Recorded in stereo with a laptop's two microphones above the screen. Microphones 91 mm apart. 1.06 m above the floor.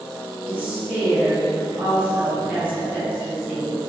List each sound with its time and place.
0.5 s a woman speaking: 15° right (ahead or behind), 1.4 m